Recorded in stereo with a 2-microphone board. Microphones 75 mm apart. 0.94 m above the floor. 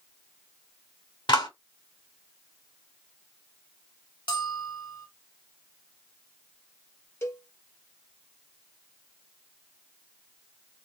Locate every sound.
1.3 s a clap: 85° left, 2.5 m
4.3 s a bell: 75° left (ahead or behind), 1.5 m
7.2 s a cowbell: 35° left (ahead or behind), 0.8 m